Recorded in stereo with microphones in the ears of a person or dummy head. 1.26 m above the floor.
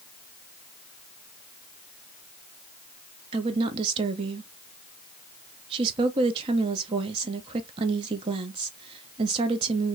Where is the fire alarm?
No fire alarm in this recording.